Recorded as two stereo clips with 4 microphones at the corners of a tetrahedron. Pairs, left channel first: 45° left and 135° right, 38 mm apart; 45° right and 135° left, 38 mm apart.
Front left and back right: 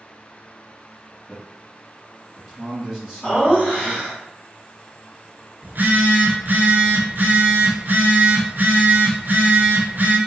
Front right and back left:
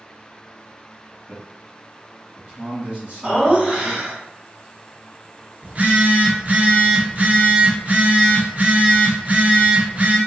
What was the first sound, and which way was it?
A man speaking, 150° left.